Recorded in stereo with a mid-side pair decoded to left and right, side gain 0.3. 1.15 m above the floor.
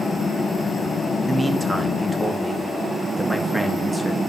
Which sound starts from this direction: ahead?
A man speaking, at 1.2 s.